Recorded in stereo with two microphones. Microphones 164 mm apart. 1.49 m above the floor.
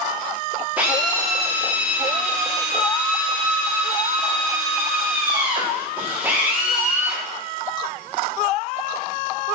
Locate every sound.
0.8 s a drill: 10° right (ahead or behind), 4 m